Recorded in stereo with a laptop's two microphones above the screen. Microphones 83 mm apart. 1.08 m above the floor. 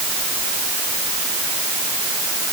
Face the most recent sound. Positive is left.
No sound to turn to.